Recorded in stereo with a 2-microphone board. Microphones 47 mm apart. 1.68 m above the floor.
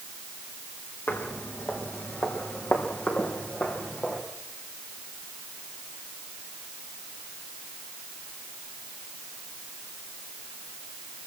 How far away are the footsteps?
About 4 m.